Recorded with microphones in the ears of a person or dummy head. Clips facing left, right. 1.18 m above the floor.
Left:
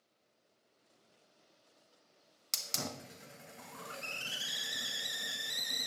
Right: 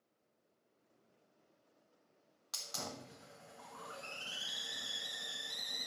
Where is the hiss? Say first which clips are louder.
Left 4 dB; 35° left (ahead or behind), 0.7 m.